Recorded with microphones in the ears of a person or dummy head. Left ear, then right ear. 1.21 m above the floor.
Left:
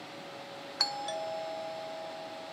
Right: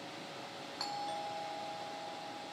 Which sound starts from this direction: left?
A doorbell, at 0.8 s.